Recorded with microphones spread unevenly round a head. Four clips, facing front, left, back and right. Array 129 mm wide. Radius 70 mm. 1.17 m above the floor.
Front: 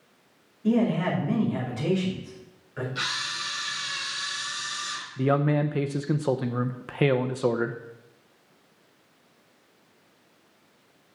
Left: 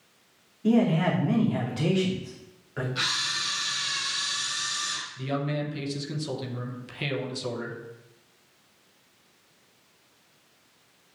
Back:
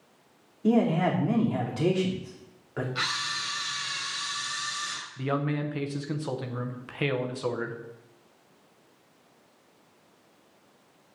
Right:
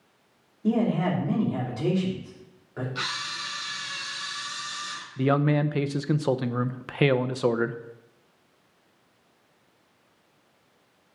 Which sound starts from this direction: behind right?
A camera shutter, at 3.0 s.